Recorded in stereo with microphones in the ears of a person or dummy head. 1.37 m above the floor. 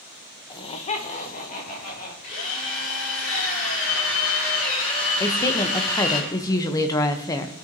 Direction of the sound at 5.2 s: 20° left (ahead or behind).